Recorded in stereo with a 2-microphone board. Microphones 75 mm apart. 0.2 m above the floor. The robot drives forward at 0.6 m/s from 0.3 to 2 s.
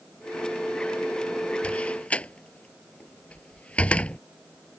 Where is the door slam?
15° left (ahead or behind).